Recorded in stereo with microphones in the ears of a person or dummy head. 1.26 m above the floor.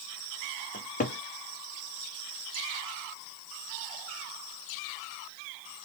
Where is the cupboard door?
40° left (ahead or behind), 0.6 m.